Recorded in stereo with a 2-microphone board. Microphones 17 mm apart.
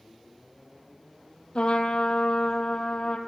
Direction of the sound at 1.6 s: 65° left (ahead or behind).